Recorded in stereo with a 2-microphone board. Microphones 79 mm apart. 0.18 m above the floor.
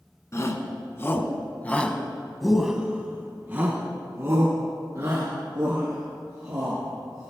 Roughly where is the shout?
Left.